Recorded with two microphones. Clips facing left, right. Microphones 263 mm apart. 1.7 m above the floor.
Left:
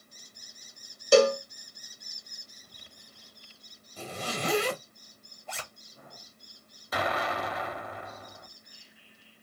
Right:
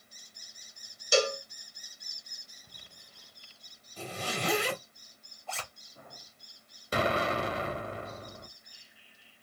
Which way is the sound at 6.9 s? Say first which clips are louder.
Right 3 dB; 30° right (ahead or behind).